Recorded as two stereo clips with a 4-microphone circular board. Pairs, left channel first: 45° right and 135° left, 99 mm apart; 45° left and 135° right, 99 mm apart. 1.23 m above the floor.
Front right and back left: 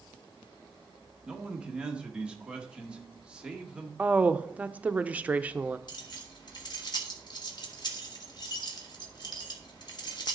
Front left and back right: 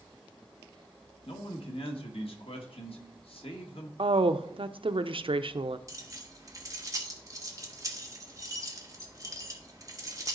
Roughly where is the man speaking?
Ahead left.